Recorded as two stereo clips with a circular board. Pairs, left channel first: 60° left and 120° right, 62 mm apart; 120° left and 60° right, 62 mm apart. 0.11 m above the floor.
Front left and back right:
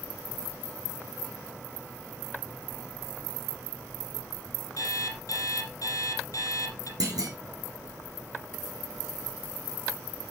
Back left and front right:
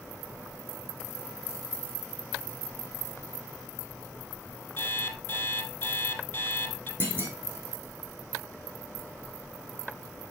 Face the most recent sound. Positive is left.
turn(degrees=-115)